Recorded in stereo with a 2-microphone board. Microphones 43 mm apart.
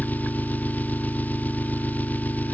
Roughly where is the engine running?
Left.